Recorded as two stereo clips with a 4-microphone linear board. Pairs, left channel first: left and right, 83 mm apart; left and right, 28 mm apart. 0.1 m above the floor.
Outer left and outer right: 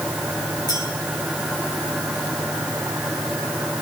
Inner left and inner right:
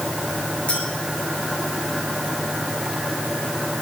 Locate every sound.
0.7 s a clink: 50° left (ahead or behind), 6 m